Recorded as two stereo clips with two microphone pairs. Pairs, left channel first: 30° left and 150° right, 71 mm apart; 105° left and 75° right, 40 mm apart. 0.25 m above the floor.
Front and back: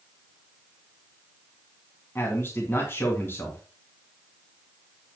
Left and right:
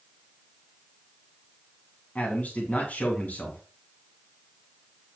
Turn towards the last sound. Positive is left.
turn(degrees=80)